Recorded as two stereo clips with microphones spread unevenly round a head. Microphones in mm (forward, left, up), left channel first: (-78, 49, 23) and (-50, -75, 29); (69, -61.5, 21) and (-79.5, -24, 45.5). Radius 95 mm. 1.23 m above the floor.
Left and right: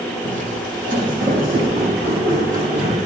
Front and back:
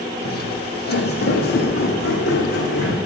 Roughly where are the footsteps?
Ahead right.